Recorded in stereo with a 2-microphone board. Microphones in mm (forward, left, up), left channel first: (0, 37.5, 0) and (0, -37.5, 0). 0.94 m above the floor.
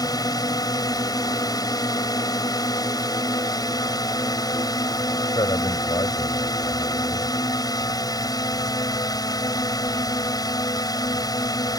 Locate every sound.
0.0 s a drone: 60° left (ahead or behind)
5.3 s a man speaking: 75° left (ahead or behind)